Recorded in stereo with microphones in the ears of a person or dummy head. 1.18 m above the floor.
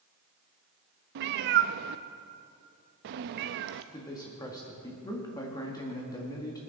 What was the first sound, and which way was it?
A cat meowing, 45° right (ahead or behind).